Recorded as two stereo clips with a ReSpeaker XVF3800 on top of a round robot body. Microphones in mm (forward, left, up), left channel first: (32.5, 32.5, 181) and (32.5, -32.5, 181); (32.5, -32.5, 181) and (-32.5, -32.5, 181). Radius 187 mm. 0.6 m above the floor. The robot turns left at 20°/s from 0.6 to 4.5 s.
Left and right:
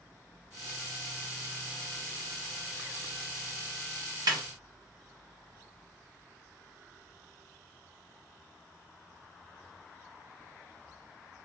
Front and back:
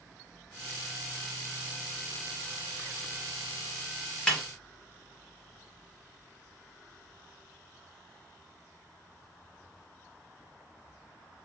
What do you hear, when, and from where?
4.3 s a snare drum: 80° right, 1.3 m